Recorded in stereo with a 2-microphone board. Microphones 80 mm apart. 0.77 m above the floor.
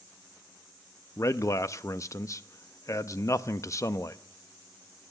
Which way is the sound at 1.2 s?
40° left (ahead or behind).